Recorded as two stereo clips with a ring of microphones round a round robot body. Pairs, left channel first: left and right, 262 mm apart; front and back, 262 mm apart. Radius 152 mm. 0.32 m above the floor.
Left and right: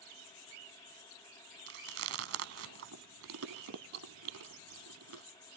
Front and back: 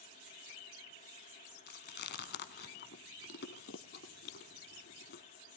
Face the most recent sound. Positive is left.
turn(degrees=-55)